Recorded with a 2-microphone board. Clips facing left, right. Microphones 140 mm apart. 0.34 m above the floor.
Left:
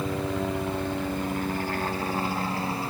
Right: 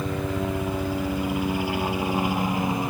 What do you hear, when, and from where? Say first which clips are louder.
0.0 s a helicopter: right 1 dB; centre (ahead or behind); by 2.9 s 15° right (ahead or behind)